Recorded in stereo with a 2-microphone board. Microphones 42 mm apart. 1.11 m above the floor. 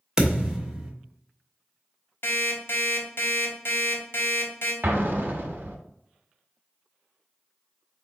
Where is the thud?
15° right (ahead or behind), 0.9 m.